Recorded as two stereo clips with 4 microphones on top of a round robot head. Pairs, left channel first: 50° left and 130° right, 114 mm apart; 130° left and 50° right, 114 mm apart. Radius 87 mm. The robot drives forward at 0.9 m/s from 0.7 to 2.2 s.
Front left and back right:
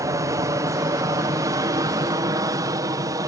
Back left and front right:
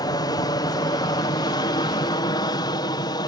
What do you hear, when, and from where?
0.0 s an aircraft: 175° left